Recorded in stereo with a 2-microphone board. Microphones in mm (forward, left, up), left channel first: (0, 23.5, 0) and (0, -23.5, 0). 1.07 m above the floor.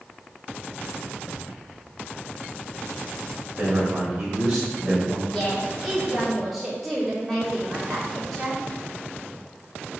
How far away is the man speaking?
About 4 m.